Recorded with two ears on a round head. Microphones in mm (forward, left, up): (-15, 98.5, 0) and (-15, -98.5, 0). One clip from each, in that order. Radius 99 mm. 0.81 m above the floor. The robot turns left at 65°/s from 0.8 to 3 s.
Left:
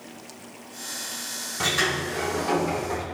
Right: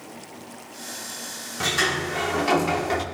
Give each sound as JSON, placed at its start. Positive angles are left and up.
{"t": 1.6, "sound": "a sliding door", "azimuth_deg": 5, "distance_m": 1.6}